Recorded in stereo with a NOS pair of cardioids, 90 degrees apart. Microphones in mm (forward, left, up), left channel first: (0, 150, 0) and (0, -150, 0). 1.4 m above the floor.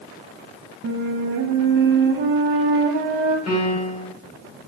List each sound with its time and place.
0.8 s a flute: 40° right, 0.6 m
3.5 s a piano: 60° left, 1.4 m